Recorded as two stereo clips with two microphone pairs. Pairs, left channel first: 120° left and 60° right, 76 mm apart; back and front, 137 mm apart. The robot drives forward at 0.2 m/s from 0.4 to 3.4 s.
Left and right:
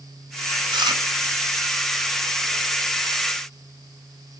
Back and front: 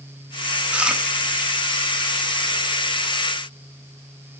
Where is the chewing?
80° right, 0.7 m; by 1.0 s 85° right, 0.7 m.